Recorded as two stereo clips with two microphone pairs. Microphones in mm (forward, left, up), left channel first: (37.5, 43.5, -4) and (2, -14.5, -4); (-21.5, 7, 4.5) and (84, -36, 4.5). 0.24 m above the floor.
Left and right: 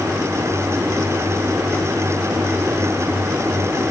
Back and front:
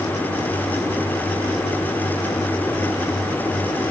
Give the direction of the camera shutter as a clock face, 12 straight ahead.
No camera shutter in this recording.